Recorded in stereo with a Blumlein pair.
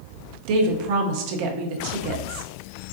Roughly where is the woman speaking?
Ahead right.